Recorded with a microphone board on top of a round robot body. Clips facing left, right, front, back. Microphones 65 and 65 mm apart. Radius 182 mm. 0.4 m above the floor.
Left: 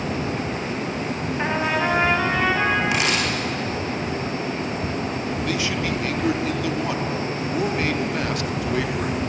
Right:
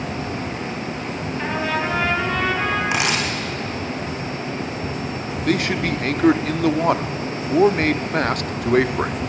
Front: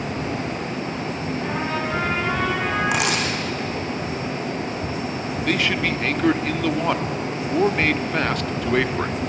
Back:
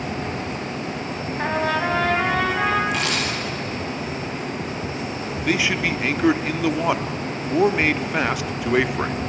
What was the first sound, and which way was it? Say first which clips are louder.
A trumpet: left 1 dB, back 6 dB; 160° left.